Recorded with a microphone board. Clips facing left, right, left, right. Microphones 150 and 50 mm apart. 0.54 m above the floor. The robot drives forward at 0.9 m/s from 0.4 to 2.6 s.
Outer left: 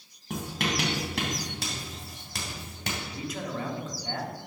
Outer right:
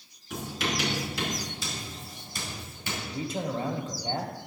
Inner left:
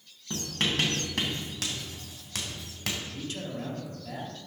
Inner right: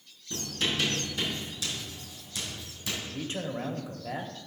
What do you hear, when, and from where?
0.3 s writing: 60° left (ahead or behind), 3.5 m; by 2.9 s 80° left, 3 m
3.0 s a man speaking: 30° right (ahead or behind), 1.1 m